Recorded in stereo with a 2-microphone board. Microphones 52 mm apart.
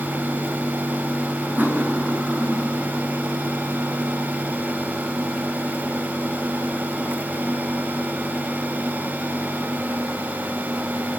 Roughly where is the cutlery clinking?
Right.